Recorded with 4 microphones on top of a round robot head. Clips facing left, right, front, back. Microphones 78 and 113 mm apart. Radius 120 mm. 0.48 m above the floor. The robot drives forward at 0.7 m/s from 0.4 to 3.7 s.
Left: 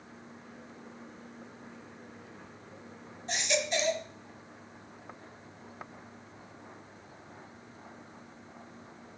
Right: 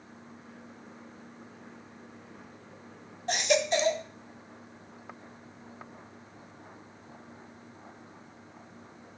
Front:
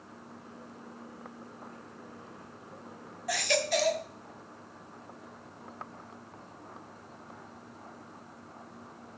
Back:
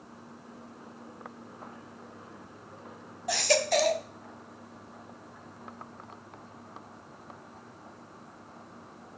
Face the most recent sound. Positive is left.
turn(degrees=-135)